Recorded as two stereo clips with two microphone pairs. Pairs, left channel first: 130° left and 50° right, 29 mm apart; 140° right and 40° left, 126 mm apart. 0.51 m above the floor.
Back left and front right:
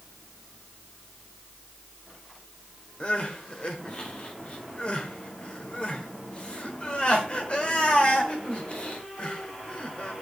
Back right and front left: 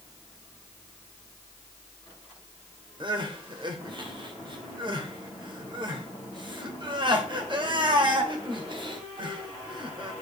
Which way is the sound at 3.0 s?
80° left.